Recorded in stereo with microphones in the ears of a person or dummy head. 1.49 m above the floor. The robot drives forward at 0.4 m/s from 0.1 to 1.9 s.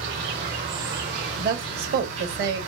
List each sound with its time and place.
0.0 s an insect: 60° right (ahead or behind), 2.5 m; by 2.7 s 70° right (ahead or behind), 2 m
1.4 s a woman speaking: 50° right (ahead or behind), 1.0 m; by 2.6 s 60° right (ahead or behind), 0.9 m